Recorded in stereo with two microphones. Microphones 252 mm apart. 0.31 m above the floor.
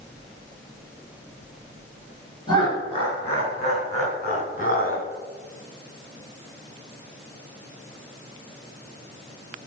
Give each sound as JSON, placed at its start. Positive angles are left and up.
{"t": 2.5, "sound": "laughter", "side_deg": 20, "distance_m": 4.5}